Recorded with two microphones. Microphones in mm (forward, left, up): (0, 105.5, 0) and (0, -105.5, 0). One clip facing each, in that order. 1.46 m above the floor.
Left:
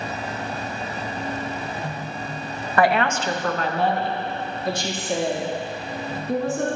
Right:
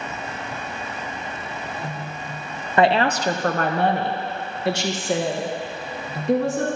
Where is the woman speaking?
20° right (ahead or behind), 0.7 m; by 6.7 s 85° right, 2.5 m.